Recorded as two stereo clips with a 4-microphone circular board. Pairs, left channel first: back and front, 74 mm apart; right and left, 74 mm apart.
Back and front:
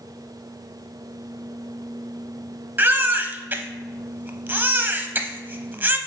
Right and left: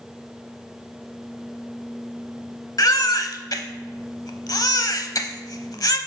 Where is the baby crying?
60° right, 0.7 m.